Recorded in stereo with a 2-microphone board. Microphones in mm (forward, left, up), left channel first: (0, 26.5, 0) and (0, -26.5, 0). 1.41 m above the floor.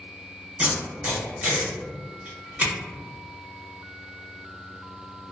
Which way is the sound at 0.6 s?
30° right (ahead or behind).